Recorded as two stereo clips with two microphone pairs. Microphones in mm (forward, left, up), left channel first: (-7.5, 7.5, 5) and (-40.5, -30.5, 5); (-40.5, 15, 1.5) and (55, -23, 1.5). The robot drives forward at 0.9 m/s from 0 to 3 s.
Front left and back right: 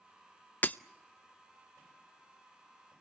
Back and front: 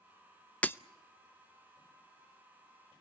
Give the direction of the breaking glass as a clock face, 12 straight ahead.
9 o'clock.